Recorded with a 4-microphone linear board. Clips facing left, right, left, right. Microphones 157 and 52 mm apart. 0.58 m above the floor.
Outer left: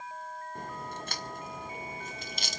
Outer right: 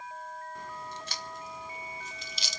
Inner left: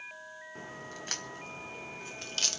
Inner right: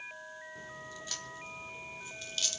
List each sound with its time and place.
0.6 s a crack: 50° left (ahead or behind), 1.1 m